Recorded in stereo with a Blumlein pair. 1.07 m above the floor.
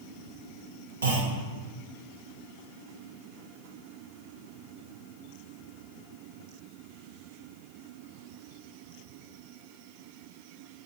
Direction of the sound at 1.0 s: 70° right.